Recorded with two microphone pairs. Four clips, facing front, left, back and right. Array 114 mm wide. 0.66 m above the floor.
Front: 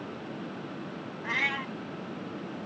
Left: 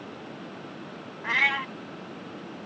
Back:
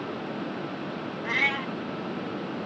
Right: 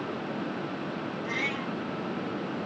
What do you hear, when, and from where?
1.2 s a cat meowing: 100° left, 0.7 m